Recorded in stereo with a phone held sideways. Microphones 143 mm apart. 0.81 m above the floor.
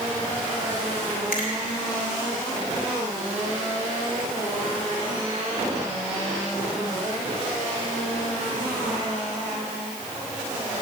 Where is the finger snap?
80° left, 3 m.